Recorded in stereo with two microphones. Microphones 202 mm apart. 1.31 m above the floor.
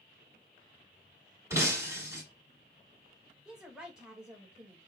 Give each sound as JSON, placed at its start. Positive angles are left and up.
{"t": 1.5, "sound": "breaking glass", "side_deg": -15, "distance_m": 1.6}
{"t": 3.5, "sound": "a woman speaking", "side_deg": -5, "distance_m": 1.9}